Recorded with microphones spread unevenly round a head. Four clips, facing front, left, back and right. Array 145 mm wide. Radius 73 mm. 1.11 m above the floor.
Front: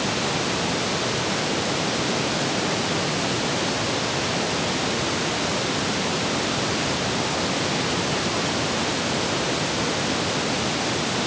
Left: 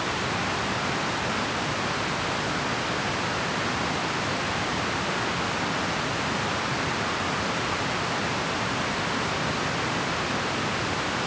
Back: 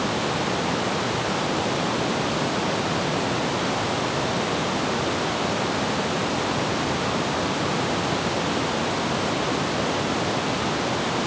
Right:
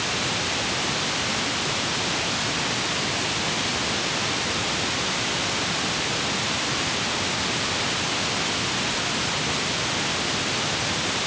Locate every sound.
Only background noise.